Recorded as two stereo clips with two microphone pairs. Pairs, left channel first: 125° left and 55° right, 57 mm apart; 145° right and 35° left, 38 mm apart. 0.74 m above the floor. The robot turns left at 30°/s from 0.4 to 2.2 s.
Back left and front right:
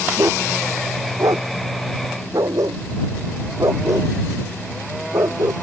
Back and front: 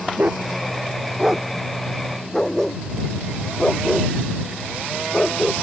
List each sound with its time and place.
0.2 s a dog barking: 20° right; by 5.5 s 70° right